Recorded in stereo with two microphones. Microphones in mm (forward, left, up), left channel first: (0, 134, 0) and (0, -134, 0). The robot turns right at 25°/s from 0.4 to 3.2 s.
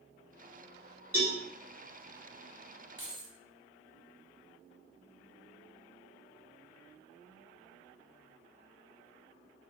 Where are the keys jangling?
45° left (ahead or behind), 0.7 m.